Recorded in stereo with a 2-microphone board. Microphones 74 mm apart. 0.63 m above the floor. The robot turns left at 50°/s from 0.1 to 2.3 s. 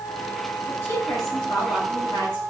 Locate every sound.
0.7 s a woman speaking: 160° left, 3.5 m; by 2.4 s 75° left, 3.5 m